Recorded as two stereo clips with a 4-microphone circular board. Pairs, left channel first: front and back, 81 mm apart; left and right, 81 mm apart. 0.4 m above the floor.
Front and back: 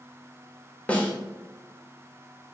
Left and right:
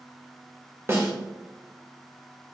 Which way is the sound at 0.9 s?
60° right.